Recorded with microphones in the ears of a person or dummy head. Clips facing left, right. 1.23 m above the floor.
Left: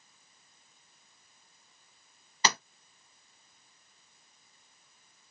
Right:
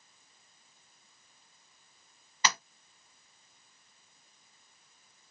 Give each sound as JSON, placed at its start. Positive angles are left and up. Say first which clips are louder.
{"t": 2.4, "sound": "tapping", "louder": "left 2 dB", "side_deg": 35, "distance_m": 0.7}